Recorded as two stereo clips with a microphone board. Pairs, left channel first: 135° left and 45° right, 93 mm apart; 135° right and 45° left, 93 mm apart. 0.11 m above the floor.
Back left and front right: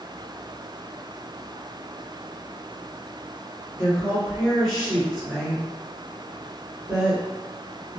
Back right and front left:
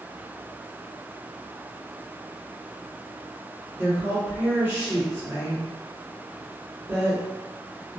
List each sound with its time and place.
3.8 s a woman speaking: 50° left, 1.6 m